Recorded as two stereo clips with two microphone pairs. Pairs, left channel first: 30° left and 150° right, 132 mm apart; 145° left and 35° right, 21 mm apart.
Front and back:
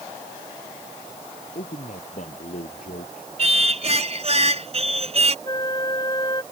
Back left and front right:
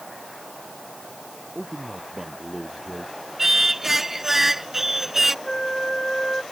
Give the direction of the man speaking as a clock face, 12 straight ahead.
10 o'clock.